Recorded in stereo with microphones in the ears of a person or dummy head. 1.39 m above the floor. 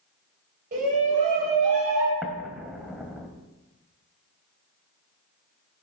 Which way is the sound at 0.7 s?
45° right (ahead or behind).